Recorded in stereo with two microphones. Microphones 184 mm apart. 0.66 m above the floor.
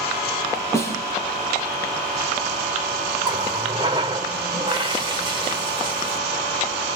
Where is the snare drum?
15° left (ahead or behind), 7 m.